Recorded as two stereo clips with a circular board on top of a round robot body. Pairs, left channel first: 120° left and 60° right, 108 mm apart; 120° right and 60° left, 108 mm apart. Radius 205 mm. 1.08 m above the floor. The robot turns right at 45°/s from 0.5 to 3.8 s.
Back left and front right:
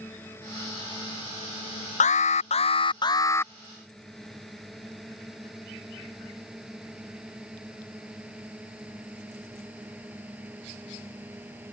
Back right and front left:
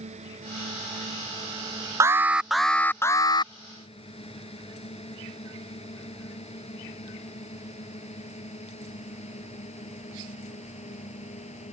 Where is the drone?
50° left; by 11.7 s 135° right.